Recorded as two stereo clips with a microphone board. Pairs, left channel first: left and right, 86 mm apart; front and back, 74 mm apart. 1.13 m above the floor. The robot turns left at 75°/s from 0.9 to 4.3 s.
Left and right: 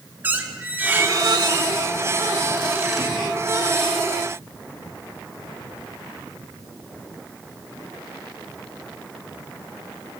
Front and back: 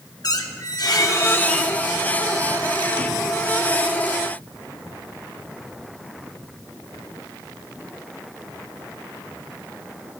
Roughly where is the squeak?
Ahead right.